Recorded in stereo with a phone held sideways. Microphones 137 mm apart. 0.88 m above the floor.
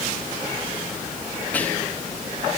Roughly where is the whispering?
Centre.